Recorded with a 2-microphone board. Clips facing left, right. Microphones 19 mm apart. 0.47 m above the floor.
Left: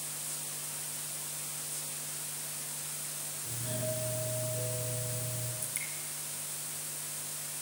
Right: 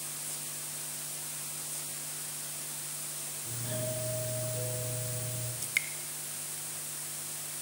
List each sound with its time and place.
3.5 s a doorbell: 10° right (ahead or behind), 2.5 m
5.6 s dripping: 50° right (ahead or behind), 1.0 m